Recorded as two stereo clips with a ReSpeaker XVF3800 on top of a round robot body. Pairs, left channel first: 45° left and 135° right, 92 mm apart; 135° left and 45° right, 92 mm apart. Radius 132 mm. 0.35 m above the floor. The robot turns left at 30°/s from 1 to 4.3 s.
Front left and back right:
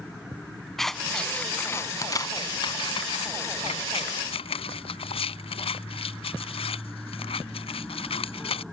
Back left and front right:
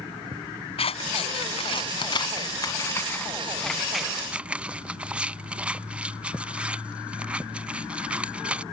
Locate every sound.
0.8 s scissors: 130° left; by 8.6 s 30° left